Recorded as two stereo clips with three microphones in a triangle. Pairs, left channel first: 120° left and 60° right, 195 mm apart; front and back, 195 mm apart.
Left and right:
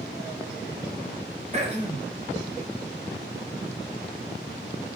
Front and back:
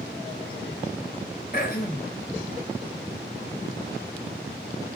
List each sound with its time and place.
1.5 s throat clearing: 15° right, 1.0 m